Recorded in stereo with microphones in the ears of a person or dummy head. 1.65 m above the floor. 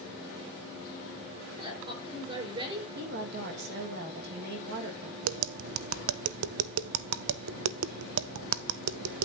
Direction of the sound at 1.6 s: 25° right (ahead or behind).